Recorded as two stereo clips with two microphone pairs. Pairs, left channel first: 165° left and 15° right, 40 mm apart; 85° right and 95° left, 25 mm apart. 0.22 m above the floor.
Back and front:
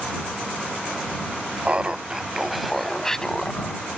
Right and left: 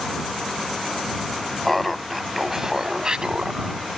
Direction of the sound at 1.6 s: 5° right.